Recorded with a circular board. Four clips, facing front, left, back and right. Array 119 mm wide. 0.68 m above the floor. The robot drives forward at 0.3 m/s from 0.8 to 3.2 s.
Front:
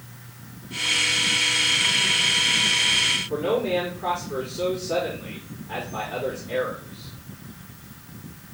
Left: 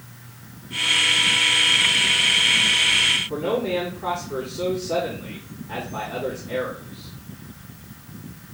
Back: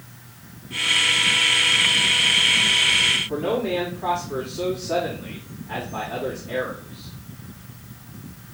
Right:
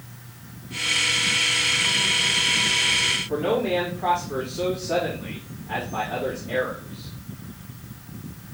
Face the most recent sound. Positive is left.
turn(degrees=-110)